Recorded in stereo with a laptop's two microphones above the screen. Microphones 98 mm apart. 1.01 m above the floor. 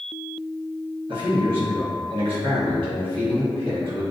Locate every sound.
1.1 s a man speaking: 65° right (ahead or behind), 1.1 m